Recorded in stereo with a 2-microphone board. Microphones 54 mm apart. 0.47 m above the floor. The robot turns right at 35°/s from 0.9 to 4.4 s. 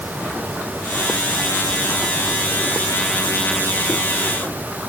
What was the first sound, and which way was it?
Only background noise.